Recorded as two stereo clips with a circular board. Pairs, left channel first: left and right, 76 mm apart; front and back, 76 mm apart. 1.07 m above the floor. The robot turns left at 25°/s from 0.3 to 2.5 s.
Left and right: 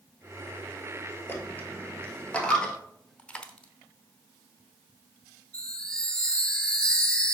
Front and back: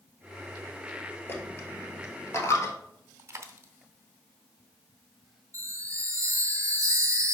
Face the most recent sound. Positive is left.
turn(degrees=165)